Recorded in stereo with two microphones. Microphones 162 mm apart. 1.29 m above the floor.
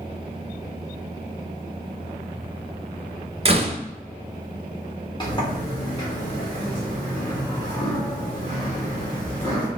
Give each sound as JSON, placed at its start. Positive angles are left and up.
{"t": 3.5, "sound": "a door slam", "side_deg": -40, "distance_m": 0.6}
{"t": 5.2, "sound": "a sliding door", "side_deg": 30, "distance_m": 1.6}